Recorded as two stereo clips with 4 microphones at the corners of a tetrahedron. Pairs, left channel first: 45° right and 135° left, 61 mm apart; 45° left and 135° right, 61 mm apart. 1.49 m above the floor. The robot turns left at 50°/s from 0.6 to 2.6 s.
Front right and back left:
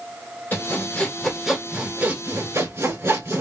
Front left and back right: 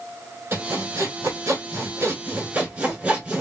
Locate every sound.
0.5 s sawing: 100° right, 1.8 m; by 3.4 s 160° left, 1.8 m